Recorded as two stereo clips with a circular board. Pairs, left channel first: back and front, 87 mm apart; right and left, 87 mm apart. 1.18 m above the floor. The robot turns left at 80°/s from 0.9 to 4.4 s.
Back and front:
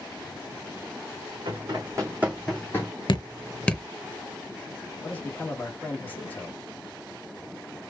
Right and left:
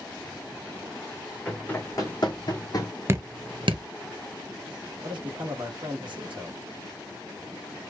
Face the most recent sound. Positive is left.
turn(degrees=110)